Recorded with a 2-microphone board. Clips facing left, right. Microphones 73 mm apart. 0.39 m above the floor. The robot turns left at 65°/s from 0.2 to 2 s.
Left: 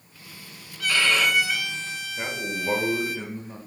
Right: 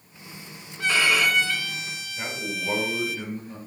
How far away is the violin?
About 0.6 m.